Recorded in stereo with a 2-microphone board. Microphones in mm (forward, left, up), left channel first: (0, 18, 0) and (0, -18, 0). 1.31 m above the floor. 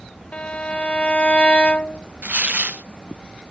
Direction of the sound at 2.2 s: 55° right (ahead or behind).